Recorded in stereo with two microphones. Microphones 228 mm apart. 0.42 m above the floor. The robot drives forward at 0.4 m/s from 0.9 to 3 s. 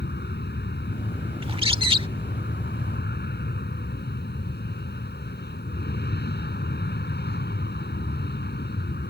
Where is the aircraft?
50° left (ahead or behind); by 9.1 s 45° left (ahead or behind).